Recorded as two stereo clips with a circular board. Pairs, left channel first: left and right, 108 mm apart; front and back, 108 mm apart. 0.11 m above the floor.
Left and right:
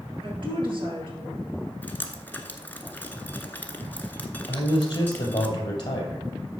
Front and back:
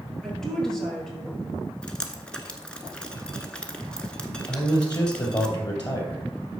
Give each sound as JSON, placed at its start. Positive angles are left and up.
{"t": 0.2, "sound": "a woman speaking", "azimuth_deg": -85, "distance_m": 2.5}
{"t": 1.8, "sound": "dripping", "azimuth_deg": 60, "distance_m": 0.9}
{"t": 4.5, "sound": "a man speaking", "azimuth_deg": 45, "distance_m": 2.5}